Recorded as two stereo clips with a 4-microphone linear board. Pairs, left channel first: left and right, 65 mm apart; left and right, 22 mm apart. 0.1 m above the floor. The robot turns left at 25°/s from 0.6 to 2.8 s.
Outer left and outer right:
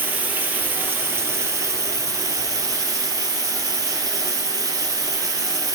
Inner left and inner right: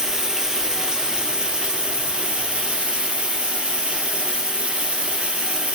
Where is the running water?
30° right, 1.0 m; by 5.8 s 85° right, 1.0 m.